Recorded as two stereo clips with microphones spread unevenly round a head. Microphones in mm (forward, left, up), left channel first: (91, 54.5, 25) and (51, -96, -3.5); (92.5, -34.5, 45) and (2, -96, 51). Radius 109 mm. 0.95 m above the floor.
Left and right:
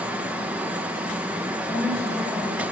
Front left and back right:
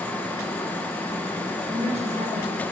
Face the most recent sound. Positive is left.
turn(degrees=165)